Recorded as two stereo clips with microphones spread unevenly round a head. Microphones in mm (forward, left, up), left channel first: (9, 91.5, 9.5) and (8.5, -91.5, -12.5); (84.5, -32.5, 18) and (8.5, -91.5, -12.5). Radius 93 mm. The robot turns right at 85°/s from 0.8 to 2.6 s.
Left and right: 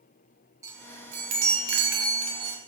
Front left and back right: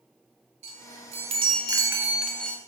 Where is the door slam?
No door slam in this recording.